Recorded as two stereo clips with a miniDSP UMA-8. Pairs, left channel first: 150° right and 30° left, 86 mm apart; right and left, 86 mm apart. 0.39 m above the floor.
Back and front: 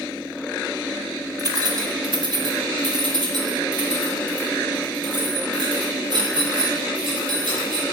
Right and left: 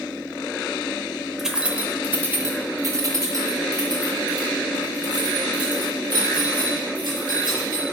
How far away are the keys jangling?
About 0.9 m.